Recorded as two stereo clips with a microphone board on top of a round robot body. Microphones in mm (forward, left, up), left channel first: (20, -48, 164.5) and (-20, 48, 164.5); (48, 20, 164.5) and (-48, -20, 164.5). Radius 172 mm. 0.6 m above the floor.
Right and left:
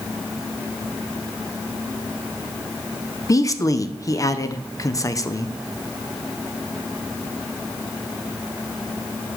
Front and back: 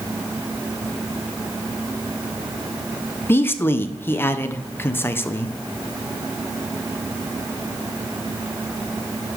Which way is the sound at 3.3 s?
35° right.